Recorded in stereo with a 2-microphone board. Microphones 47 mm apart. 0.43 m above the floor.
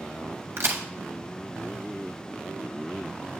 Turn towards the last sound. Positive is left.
turn(degrees=-75)  # may be behind; listen again after turning